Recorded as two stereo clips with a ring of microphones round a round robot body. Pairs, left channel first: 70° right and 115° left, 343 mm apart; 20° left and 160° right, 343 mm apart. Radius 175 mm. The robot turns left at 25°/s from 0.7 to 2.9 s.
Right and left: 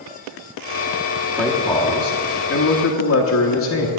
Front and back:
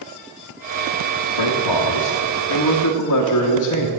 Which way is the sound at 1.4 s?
20° left.